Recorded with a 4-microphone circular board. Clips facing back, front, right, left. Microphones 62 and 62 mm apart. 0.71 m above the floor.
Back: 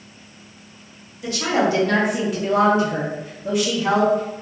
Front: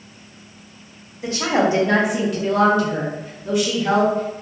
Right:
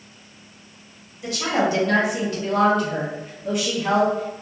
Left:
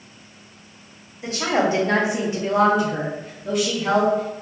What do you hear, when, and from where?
1.2 s a woman speaking: 45° left, 0.9 m; by 4.4 s 160° right, 1.3 m